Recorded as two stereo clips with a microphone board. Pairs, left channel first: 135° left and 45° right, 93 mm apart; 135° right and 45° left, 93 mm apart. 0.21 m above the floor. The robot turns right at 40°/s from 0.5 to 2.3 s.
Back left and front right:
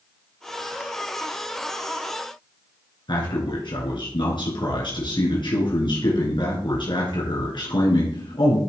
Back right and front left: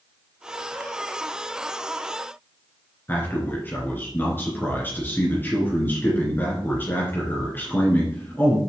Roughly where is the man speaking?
Behind.